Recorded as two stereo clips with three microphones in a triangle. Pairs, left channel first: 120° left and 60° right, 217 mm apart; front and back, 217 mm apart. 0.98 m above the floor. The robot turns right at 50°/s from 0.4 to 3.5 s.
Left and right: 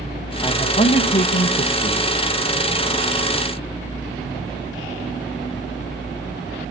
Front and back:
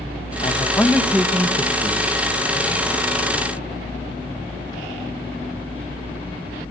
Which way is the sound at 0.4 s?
55° left.